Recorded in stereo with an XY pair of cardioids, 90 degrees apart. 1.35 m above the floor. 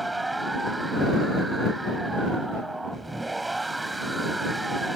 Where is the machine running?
20° right.